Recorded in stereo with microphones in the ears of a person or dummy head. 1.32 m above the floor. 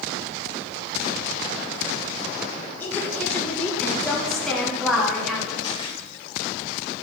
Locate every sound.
2.8 s a woman speaking: 10° left (ahead or behind), 3.5 m; by 5.5 s 5° right (ahead or behind), 4.5 m
5.6 s a camera shutter: 25° left (ahead or behind), 3.5 m